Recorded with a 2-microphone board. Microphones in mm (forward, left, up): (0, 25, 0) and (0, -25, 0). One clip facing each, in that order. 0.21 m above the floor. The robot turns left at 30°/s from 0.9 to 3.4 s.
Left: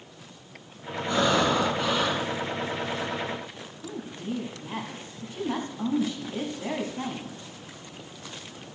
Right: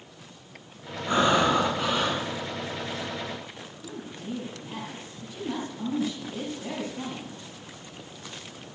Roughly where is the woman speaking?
Left.